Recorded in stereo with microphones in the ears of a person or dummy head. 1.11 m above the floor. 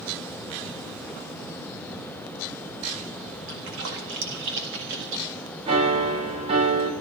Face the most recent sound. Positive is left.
turn(degrees=-30)  # may be behind; listen again after turning